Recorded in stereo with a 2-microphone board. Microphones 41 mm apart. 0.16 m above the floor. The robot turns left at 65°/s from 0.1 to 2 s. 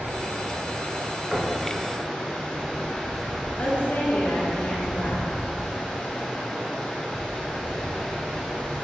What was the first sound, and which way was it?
Running water, 65° right.